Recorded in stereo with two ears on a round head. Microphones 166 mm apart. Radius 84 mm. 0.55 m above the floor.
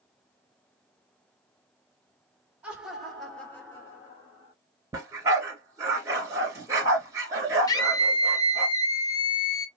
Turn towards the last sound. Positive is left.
turn(degrees=20)  # may be behind; listen again after turning